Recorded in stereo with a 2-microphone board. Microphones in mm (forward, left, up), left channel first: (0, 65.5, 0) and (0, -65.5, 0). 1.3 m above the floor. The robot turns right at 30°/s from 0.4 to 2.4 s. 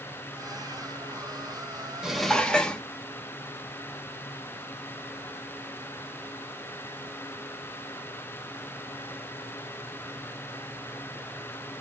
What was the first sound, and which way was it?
Dishes clattering, 5° right (ahead or behind).